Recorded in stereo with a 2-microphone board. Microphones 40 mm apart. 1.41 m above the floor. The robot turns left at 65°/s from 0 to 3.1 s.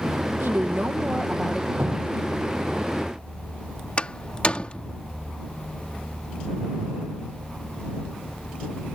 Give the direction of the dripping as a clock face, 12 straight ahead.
1 o'clock.